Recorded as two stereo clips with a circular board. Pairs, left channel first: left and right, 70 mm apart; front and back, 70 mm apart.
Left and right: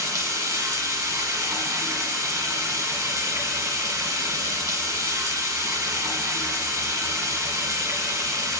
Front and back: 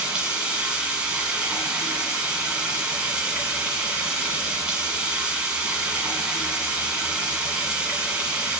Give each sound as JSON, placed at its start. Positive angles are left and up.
{"t": 0.0, "sound": "running water", "azimuth_deg": -110, "distance_m": 1.8}